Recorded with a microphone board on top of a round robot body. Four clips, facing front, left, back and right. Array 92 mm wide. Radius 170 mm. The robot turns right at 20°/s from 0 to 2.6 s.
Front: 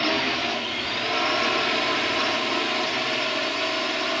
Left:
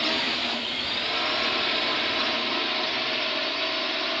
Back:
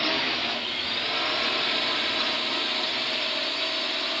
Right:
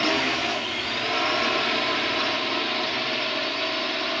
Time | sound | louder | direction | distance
0.0 | a drone | right 4 dB, front 4 dB | 60° right | ?